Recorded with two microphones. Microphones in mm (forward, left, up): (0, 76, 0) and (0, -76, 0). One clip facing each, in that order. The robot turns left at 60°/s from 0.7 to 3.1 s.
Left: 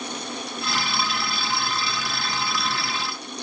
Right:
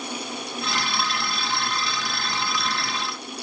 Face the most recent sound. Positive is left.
No sound to turn to.